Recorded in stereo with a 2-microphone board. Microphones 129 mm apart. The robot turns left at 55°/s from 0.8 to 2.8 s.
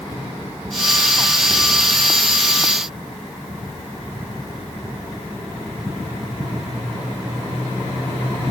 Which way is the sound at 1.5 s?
10° right (ahead or behind).